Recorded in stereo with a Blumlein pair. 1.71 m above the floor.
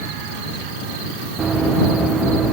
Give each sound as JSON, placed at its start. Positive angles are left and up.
{"t": 1.4, "sound": "running footsteps", "azimuth_deg": -20}